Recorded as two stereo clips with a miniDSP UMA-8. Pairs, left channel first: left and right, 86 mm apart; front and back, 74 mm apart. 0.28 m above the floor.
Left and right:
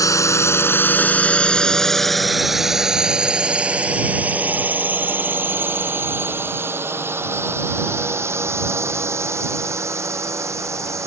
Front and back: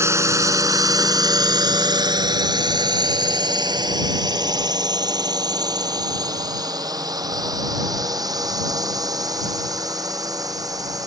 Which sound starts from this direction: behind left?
A drone, at 0.0 s.